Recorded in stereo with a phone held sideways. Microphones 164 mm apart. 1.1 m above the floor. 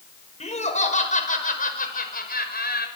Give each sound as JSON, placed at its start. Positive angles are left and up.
{"t": 0.4, "sound": "laughter", "side_deg": 40, "distance_m": 5.5}